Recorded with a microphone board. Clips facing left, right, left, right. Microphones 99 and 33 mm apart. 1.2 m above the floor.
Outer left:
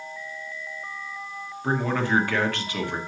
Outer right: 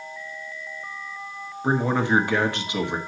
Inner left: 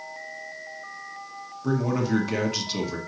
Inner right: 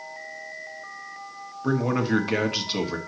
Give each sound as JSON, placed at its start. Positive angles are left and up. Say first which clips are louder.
{"t": 1.6, "sound": "a man speaking", "louder": "outer right 3 dB, inner right 1 dB", "side_deg": -20, "distance_m": 1.3}